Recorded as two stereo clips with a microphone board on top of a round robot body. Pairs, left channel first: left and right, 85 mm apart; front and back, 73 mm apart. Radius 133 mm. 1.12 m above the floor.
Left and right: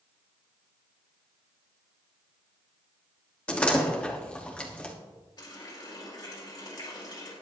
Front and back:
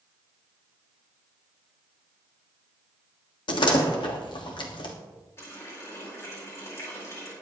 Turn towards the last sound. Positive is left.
turn(degrees=50)